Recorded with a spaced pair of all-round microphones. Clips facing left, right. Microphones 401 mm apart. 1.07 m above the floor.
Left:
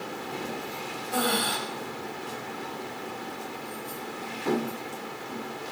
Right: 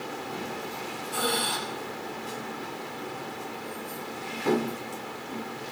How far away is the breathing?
About 1.0 m.